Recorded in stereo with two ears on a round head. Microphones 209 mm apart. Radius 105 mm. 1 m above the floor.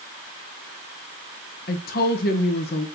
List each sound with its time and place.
1.7 s a woman speaking: 40° left (ahead or behind), 1.0 m